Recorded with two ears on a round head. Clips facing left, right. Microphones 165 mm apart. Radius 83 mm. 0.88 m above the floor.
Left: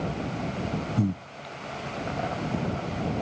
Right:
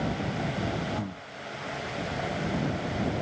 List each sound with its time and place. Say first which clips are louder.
1.0 s breathing: left 8 dB; 35° left (ahead or behind)